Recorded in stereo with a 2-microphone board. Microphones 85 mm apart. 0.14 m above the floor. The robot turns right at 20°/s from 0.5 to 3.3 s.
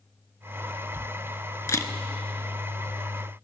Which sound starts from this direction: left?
A camera shutter, at 1.7 s.